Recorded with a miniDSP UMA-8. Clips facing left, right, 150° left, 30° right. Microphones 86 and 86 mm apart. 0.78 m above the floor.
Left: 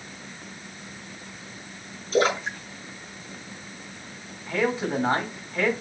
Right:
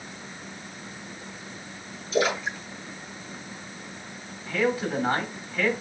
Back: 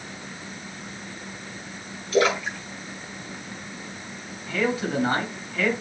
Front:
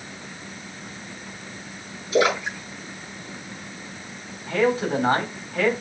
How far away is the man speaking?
About 4.5 m.